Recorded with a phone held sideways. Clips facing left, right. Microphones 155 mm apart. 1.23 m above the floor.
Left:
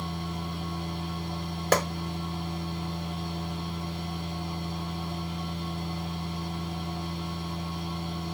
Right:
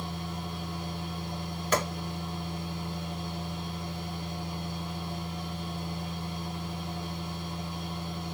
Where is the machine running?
65° left (ahead or behind), 1.7 m.